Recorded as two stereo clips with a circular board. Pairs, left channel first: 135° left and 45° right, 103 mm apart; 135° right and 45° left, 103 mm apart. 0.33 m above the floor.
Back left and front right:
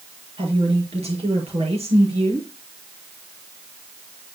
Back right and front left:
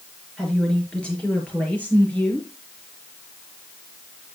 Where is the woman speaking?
50° right, 5 m; by 2.5 s 65° right, 6.5 m.